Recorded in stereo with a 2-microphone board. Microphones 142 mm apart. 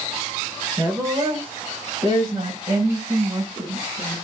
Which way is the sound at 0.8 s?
25° right (ahead or behind).